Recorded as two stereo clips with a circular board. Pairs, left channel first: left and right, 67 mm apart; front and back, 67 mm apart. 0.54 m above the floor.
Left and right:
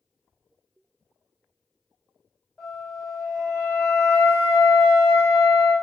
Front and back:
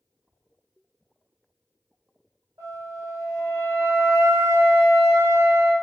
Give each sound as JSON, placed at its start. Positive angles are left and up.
{"t": 2.6, "sound": "a flute", "azimuth_deg": 170, "distance_m": 1.5}